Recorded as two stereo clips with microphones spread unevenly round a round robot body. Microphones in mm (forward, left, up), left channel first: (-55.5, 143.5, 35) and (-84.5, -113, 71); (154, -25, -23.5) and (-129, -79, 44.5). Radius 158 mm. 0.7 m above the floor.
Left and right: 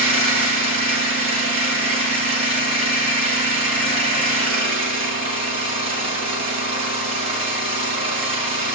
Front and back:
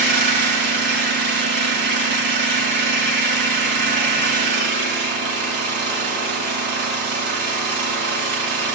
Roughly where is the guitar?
No guitar in this recording.